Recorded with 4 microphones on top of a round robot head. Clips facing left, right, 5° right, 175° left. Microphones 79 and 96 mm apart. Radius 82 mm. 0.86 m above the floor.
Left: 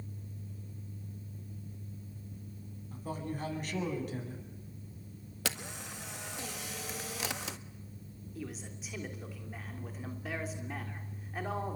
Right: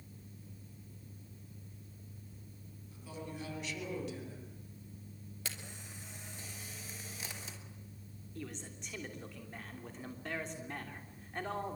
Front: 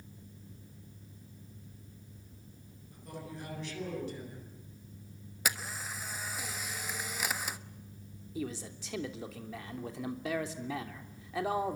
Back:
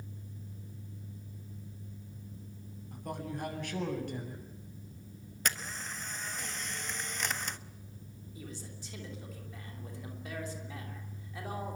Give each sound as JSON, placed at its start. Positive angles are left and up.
{"t": 2.9, "sound": "a man speaking", "azimuth_deg": 135, "distance_m": 8.0}
{"t": 5.5, "sound": "a camera shutter", "azimuth_deg": 80, "distance_m": 1.3}
{"t": 8.3, "sound": "a man speaking", "azimuth_deg": 5, "distance_m": 3.0}